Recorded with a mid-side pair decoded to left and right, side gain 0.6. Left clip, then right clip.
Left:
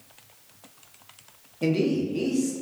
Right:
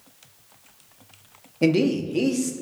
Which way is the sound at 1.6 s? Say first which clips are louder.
Right 4 dB; 40° right.